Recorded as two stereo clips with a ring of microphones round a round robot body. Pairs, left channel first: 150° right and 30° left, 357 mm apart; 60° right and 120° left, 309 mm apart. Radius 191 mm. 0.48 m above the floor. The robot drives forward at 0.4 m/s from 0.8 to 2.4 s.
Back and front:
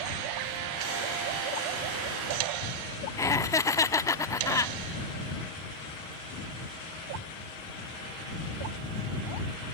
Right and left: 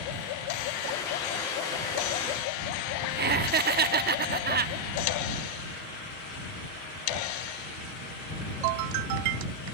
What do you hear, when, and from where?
3.2 s laughter: 135° left